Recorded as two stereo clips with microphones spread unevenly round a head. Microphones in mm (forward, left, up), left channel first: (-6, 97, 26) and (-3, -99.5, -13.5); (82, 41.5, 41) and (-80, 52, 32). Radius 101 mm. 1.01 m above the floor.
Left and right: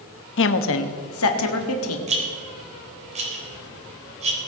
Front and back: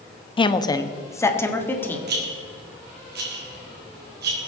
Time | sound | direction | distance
0.4 | a woman speaking | 55° left | 0.9 m
2.1 | a rattle | 145° right | 3.5 m